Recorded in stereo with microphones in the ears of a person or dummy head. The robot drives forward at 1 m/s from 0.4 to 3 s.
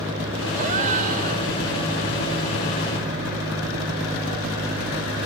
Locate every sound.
0.6 s a gasp: 40° right (ahead or behind); by 1.5 s 50° right (ahead or behind)